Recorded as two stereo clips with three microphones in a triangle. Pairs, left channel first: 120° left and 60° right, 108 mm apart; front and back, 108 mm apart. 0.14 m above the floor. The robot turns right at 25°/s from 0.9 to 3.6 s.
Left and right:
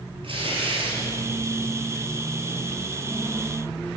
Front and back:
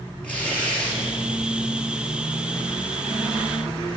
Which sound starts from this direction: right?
Tearing paper, at 0.2 s.